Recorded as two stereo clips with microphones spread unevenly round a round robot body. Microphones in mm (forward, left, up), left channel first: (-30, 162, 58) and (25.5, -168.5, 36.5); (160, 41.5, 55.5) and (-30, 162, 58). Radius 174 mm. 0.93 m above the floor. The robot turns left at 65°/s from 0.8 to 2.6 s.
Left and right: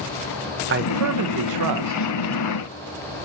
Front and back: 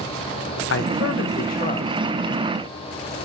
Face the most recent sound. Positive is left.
turn(degrees=-150)